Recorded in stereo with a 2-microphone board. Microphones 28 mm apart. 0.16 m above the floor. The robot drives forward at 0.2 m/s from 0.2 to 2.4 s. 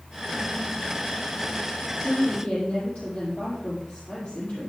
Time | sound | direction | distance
2.0 | a woman speaking | 55° left (ahead or behind) | 5 m